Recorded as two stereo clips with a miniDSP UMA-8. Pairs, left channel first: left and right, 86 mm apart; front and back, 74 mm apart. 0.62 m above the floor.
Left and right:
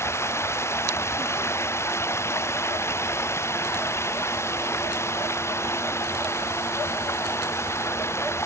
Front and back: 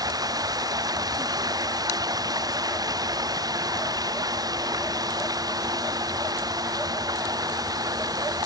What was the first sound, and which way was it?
Running water, 150° left.